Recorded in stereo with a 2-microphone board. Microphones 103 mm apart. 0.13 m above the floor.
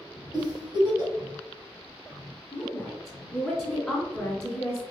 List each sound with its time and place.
0.3 s a giggle: 40° right (ahead or behind), 1.8 m
2.5 s a woman speaking: 5° left (ahead or behind), 1.1 m